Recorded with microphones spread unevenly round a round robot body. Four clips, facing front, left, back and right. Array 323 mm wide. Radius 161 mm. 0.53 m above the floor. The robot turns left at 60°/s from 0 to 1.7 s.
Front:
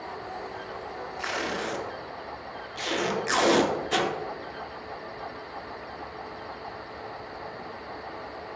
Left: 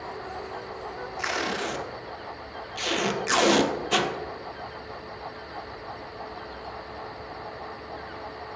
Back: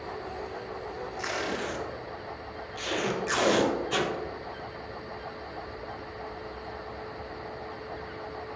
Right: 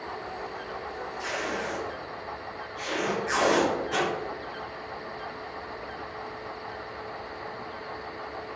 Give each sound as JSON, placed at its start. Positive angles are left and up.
{"t": 1.2, "sound": "tape being pulled", "azimuth_deg": 90, "distance_m": 0.6}